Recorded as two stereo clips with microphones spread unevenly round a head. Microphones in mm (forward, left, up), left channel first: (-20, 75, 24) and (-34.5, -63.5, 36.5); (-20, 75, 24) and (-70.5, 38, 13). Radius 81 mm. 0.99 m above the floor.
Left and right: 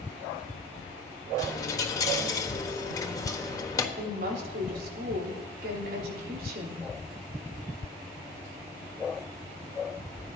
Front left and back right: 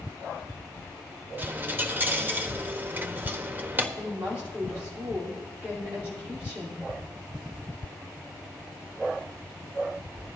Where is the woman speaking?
65° right, 3 m.